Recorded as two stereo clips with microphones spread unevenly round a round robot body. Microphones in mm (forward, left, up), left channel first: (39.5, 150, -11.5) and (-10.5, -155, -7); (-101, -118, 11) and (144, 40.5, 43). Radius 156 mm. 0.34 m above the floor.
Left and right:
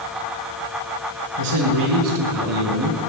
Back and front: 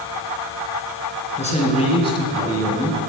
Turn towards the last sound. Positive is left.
turn(degrees=-65)